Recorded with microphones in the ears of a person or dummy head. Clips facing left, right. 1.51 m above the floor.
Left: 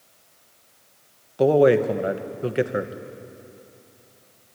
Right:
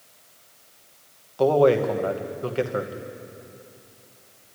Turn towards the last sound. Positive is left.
turn(degrees=25)  # may be behind; listen again after turning